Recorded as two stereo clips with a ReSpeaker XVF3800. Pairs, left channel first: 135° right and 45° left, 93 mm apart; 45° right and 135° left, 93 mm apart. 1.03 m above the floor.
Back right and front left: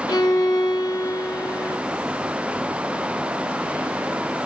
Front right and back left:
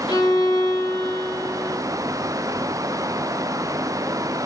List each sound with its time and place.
0.1 s a violin: 85° right, 0.8 m